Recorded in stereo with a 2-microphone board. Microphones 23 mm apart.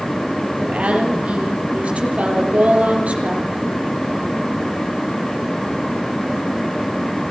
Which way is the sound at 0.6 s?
70° right (ahead or behind).